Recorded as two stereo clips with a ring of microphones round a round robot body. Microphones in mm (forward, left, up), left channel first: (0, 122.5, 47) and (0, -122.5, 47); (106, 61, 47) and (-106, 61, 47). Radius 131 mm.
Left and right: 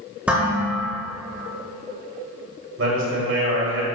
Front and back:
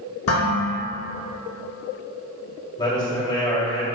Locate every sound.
0.3 s dishes clattering: 5° right, 3.5 m
2.8 s a man speaking: 70° right, 2.5 m